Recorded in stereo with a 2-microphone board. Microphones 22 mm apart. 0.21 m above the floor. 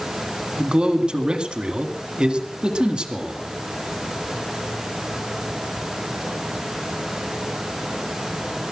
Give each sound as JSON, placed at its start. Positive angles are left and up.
{"t": 0.6, "sound": "a man speaking", "side_deg": -45, "distance_m": 1.9}